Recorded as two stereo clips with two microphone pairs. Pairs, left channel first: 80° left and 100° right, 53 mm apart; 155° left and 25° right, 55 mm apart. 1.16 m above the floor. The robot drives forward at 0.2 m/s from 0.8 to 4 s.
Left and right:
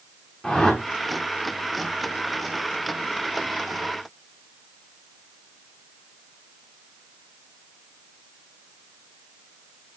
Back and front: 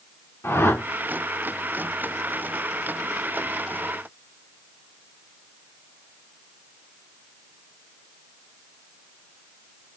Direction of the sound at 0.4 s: 160° left.